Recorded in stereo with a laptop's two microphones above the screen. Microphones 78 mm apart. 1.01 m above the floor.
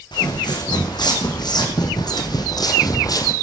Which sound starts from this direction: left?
Footsteps, at 0.1 s.